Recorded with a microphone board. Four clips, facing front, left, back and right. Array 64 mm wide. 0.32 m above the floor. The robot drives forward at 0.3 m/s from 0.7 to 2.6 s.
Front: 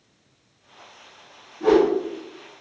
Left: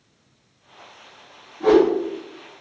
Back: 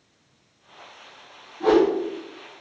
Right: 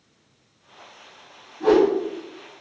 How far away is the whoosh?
About 1.9 m.